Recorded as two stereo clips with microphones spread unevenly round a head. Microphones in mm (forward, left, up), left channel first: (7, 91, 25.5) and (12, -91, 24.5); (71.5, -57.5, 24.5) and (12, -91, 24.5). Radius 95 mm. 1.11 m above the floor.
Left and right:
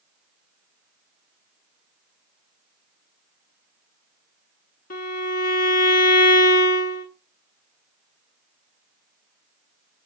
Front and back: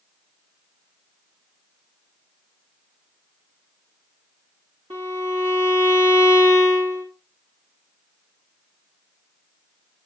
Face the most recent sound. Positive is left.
turn(degrees=140)